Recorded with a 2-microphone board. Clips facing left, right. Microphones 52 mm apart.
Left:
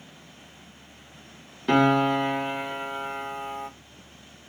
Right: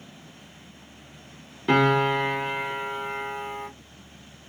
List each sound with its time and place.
1.7 s a piano: 5° right (ahead or behind), 1.1 m